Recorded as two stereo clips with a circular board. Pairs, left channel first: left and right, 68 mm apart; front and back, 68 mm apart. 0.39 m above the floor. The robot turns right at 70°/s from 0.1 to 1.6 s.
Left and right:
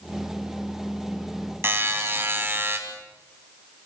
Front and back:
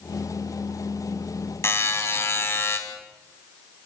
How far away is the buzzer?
About 3 m.